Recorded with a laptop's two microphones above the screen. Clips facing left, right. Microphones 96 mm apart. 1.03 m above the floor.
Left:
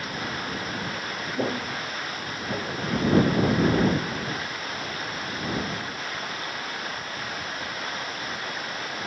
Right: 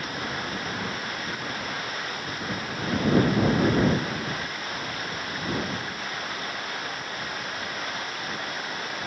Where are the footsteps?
75° left (ahead or behind).